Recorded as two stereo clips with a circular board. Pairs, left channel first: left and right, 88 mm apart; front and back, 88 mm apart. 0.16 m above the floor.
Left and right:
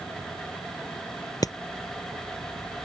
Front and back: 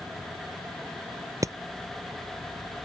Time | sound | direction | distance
1.4 | hammering | 130° left | ?